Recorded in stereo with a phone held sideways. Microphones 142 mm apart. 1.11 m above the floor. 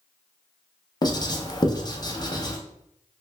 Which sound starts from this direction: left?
Writing, at 1.0 s.